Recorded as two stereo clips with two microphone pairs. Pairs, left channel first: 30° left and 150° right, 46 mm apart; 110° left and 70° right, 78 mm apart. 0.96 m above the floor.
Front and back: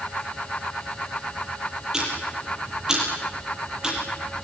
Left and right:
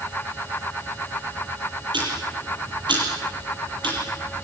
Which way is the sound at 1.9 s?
75° right.